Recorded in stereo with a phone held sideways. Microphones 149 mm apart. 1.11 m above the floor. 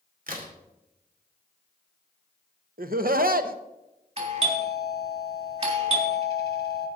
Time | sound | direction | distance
0.3 | a crack | 70° right (ahead or behind) | 2.5 m
2.8 | laughter | 75° right (ahead or behind) | 0.9 m
4.2 | a doorbell | 45° right (ahead or behind) | 3 m